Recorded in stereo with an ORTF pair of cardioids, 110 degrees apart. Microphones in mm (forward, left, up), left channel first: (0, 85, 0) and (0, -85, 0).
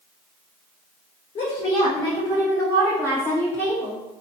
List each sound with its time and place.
1.4 s a woman speaking: 40° left, 1.0 m; by 4.0 s 10° left, 2.5 m